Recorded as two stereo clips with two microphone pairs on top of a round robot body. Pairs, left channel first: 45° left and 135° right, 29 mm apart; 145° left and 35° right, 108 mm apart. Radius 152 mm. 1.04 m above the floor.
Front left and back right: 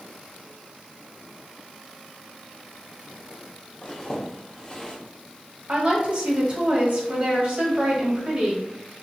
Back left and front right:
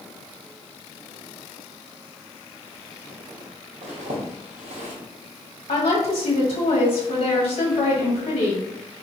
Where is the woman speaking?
Straight behind, 1.5 m.